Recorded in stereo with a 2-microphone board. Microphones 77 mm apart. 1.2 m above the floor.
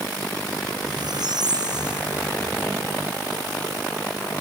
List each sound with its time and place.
0.8 s a squeak: 65° right (ahead or behind)